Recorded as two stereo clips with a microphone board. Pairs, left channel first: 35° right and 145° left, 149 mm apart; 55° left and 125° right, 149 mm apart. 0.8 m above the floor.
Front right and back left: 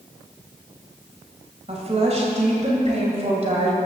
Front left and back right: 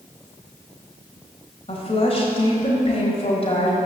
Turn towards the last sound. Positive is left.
turn(degrees=105)